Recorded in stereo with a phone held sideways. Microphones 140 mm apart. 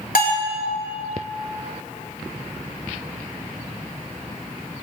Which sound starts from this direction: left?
A bell, at 0.1 s.